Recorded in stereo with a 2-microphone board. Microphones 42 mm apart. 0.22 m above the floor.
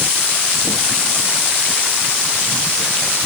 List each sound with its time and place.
Only background noise.